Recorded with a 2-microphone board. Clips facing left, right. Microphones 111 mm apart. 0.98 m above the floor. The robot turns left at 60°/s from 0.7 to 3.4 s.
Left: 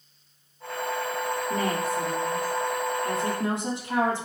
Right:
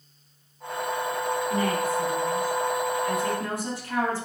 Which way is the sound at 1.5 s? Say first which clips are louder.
Right 1 dB; 135° left.